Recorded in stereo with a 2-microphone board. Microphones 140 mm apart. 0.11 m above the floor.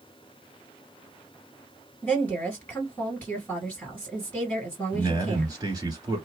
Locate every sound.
2.0 s a woman speaking: 10° left (ahead or behind), 2 m
4.9 s a man speaking: 25° right (ahead or behind), 1.5 m